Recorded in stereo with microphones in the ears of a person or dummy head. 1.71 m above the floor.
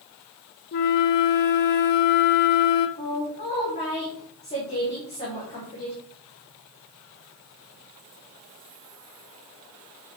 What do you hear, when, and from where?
0.7 s a flute: 45° left (ahead or behind), 0.5 m
3.0 s a woman speaking: 35° left (ahead or behind), 3.5 m